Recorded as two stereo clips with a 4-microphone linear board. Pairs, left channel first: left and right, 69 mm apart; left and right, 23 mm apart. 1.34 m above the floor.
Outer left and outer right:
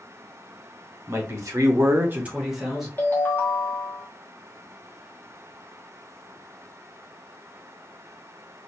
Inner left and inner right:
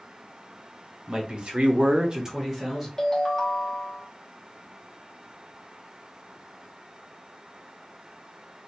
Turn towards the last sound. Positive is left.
turn(degrees=30)  # may be behind; listen again after turning